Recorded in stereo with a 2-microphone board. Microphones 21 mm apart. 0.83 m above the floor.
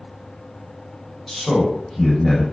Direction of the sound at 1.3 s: 10° left (ahead or behind).